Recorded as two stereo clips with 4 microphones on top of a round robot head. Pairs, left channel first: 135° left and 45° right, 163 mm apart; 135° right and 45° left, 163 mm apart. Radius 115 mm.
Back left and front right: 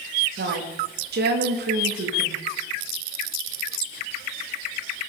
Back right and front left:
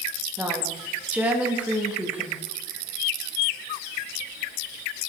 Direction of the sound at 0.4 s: 35° right.